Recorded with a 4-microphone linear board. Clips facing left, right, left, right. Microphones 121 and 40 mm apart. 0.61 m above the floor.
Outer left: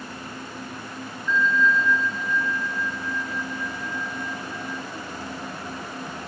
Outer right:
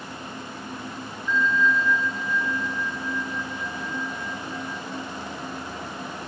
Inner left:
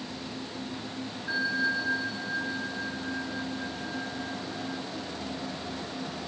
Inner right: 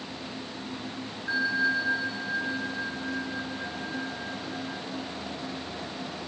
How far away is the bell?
About 1.2 m.